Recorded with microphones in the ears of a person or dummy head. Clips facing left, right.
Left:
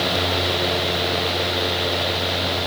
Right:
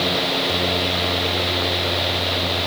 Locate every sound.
Only background noise.